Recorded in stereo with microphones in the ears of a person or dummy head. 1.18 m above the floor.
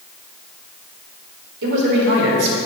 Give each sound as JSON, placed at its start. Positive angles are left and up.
{"t": 1.6, "sound": "a man speaking", "side_deg": -60, "distance_m": 4.5}